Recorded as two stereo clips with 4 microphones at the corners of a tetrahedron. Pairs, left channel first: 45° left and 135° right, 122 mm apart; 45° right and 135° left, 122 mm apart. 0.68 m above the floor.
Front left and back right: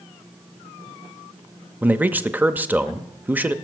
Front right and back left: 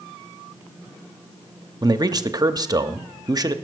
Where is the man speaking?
160° left, 0.7 m.